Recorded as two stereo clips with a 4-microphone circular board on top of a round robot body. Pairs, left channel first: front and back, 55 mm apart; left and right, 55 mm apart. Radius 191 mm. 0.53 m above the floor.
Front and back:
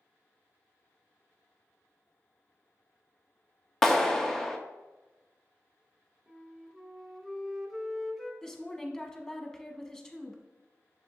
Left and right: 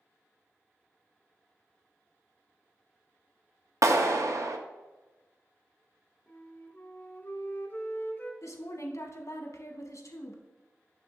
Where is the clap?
80° right, 0.8 m.